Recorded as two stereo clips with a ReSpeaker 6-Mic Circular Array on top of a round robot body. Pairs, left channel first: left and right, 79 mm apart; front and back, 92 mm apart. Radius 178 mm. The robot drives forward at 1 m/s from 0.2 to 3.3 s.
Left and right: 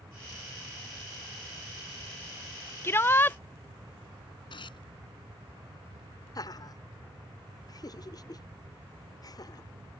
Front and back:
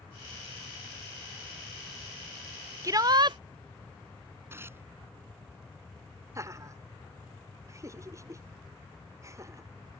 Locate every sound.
2.8 s a shout: 140° left; by 3.4 s 155° left
4.5 s tearing paper: 115° left
6.3 s laughter: 125° left